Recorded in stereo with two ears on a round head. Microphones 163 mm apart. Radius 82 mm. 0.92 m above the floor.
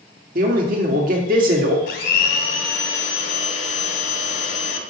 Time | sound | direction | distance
0.3 | a man speaking | 50° right (ahead or behind) | 1.8 m
1.9 | a blender | 70° left (ahead or behind) | 1.7 m